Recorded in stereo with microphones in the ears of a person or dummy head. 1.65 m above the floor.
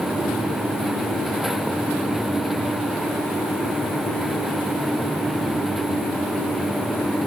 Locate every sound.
Only background noise.